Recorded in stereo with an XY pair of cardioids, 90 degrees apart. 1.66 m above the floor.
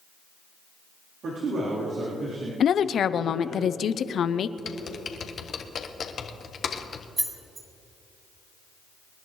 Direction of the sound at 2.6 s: 60° left.